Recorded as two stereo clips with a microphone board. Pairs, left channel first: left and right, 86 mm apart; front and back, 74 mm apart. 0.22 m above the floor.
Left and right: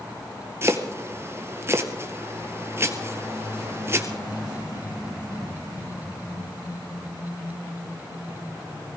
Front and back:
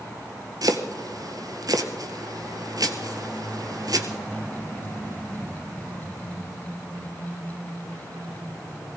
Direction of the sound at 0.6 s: 150° right.